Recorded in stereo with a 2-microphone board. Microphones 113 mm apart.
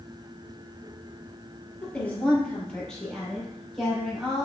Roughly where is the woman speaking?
Centre.